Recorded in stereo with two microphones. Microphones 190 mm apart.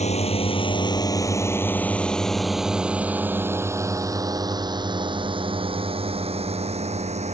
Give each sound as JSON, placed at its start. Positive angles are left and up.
{"t": 0.0, "sound": "a drone", "side_deg": 35}